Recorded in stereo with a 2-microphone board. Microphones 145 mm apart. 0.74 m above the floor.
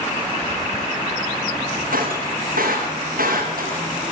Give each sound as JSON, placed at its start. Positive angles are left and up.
{"t": 1.9, "sound": "breaking glass", "side_deg": -80, "distance_m": 7.0}